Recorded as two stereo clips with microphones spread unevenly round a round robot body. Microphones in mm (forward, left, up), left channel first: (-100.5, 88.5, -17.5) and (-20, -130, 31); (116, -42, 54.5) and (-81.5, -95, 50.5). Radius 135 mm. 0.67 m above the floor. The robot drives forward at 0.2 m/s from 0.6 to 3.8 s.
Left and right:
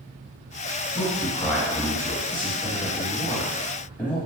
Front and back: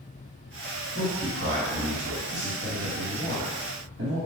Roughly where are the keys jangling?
I don't hear keys jangling.